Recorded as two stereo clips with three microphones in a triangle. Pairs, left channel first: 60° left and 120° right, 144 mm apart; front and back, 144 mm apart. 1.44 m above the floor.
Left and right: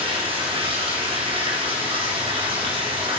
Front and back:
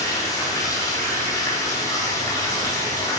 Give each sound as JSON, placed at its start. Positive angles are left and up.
{"t": 0.0, "sound": "running water", "azimuth_deg": -65, "distance_m": 3.5}